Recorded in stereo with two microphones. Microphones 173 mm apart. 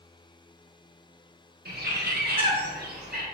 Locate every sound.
1.6 s a bird: 65° right (ahead or behind), 1.2 m